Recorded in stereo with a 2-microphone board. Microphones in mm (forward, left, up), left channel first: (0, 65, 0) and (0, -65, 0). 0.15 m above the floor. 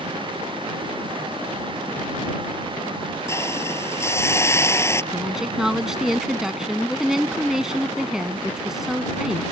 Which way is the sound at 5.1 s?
5° right (ahead or behind).